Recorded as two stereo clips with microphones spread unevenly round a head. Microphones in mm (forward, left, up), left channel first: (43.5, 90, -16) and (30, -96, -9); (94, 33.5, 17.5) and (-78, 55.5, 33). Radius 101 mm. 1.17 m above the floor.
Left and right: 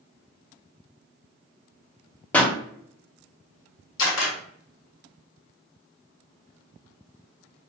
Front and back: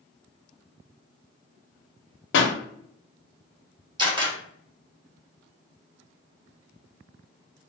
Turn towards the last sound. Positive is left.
turn(degrees=110)